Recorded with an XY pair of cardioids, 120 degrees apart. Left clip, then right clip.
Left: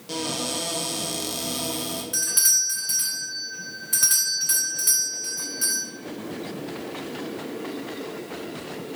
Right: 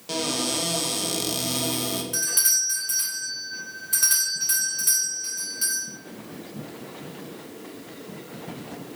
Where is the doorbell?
10° left, 1.7 m.